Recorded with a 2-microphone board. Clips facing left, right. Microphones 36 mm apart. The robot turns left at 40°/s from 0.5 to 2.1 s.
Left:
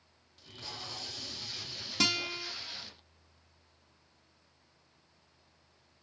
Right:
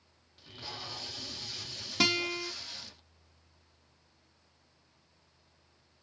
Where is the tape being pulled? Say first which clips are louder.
Right 1 dB; 10° right (ahead or behind), 0.5 m; by 3.0 s 15° left (ahead or behind), 0.5 m.